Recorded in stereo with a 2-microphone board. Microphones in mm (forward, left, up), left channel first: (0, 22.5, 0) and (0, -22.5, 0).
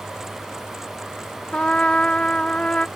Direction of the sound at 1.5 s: 25° left (ahead or behind).